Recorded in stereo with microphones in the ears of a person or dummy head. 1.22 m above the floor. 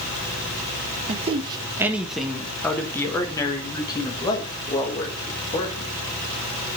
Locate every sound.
1.1 s a man speaking: 35° right (ahead or behind), 0.7 m; by 5.9 s 25° left (ahead or behind), 2.5 m